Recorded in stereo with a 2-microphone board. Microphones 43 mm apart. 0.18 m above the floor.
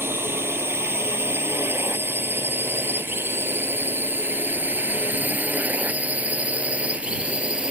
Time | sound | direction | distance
0.0 | a drone | 75° right (ahead or behind) | ?